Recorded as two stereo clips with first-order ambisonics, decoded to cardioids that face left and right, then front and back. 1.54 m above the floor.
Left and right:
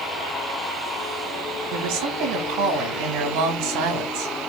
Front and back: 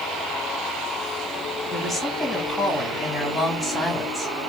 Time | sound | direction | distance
1.7 | a woman speaking | 85° right | 3.5 m